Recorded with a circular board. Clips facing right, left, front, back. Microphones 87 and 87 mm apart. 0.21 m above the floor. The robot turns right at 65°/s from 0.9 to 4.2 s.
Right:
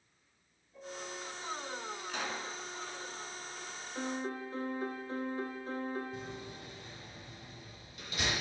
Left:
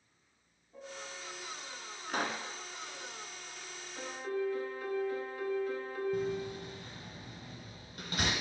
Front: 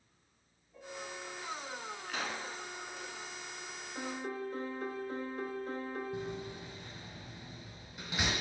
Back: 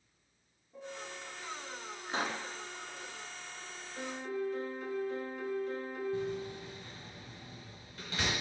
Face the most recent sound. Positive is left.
turn(degrees=70)